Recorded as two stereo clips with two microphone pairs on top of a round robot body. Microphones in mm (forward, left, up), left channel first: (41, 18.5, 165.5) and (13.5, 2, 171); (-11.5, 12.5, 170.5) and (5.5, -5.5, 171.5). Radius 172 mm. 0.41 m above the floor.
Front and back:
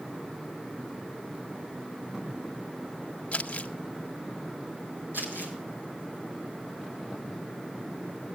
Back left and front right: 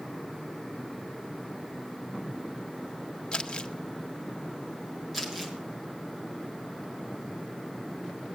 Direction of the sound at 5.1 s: 140° right.